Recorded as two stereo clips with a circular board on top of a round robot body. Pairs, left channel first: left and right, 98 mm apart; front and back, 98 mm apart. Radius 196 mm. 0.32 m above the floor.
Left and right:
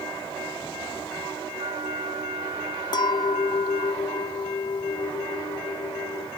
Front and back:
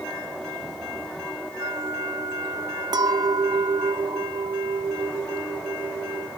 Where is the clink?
135° left.